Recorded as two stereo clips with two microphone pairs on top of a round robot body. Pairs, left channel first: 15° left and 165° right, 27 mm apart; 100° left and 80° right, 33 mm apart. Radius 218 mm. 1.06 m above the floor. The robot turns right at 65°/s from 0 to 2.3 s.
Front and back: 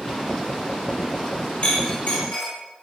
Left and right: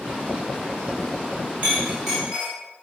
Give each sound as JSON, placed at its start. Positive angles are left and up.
{"t": 1.6, "sound": "a clink", "azimuth_deg": -20, "distance_m": 1.0}